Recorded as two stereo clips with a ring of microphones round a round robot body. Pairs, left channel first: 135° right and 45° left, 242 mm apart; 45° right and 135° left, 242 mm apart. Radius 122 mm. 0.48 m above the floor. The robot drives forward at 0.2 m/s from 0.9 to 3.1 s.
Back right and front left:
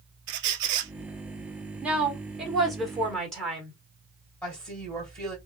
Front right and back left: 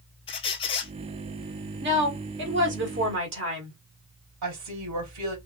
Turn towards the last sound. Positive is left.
turn(degrees=140)